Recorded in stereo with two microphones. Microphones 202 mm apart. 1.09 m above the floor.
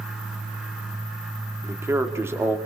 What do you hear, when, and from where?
1.6 s a man speaking: 10° right (ahead or behind), 1.9 m